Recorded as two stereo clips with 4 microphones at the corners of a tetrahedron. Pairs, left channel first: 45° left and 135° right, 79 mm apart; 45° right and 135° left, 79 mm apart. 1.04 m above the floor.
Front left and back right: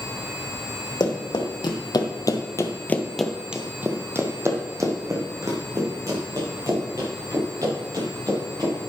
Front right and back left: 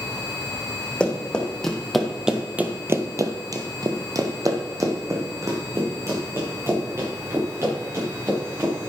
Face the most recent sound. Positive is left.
turn(degrees=-170)